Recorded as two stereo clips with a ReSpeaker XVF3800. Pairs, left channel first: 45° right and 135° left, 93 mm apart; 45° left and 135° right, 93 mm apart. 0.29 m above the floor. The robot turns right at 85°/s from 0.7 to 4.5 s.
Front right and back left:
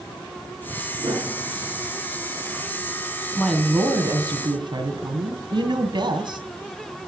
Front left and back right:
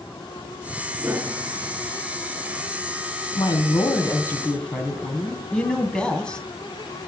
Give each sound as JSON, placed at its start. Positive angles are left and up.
{"t": 1.0, "sound": "a piano", "azimuth_deg": 145, "distance_m": 4.0}
{"t": 3.4, "sound": "a woman speaking", "azimuth_deg": 25, "distance_m": 2.0}